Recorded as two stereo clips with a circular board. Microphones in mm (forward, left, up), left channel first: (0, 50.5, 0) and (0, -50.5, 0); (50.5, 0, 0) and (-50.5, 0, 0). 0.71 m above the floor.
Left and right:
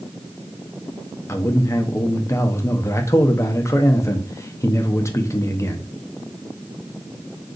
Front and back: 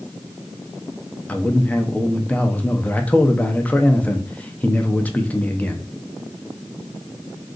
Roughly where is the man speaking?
Ahead left.